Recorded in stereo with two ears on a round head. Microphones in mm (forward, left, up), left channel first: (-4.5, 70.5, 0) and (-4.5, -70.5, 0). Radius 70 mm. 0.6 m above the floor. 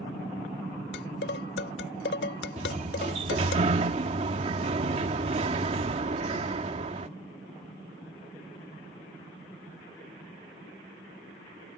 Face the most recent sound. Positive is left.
turn(degrees=-40)  # may be behind; listen again after turning